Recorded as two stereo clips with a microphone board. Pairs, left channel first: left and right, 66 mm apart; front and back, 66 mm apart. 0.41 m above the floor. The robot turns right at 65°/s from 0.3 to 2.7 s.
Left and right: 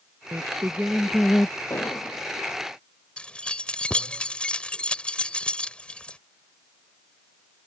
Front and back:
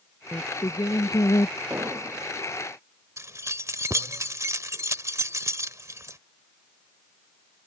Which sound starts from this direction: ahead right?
Singing, at 0.3 s.